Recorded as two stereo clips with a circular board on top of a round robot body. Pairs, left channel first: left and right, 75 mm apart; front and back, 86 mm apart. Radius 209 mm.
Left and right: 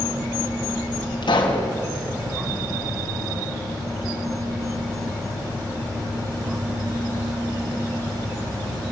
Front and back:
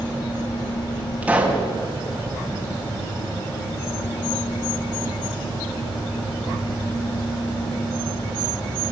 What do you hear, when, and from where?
1.2 s a pop: 105° left, 3.5 m